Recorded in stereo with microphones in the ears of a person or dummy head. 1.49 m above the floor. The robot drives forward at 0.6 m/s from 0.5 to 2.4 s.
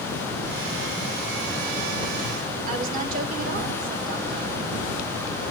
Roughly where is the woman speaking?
Right.